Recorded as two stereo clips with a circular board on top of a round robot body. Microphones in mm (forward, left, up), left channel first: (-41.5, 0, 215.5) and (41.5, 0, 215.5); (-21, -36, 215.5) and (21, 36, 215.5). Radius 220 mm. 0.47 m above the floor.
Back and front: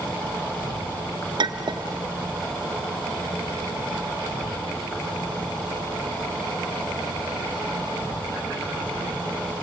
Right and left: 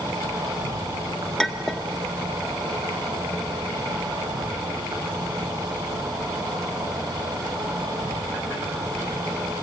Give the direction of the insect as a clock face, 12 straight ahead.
8 o'clock.